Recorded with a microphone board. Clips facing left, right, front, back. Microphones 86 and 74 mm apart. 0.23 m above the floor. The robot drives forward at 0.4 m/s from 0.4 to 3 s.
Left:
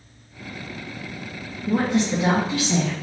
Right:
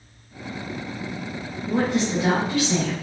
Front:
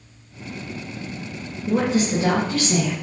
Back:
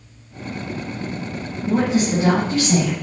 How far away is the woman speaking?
About 1.4 m.